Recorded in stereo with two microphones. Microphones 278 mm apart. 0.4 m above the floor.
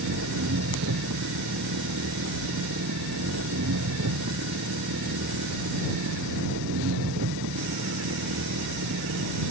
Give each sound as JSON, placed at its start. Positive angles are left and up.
{"t": 0.0, "sound": "an engine running", "side_deg": -80}